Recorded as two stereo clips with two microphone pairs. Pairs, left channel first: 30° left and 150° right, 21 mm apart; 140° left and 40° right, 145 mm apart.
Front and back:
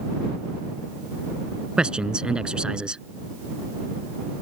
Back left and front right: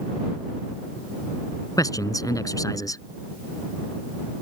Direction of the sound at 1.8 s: 160° right.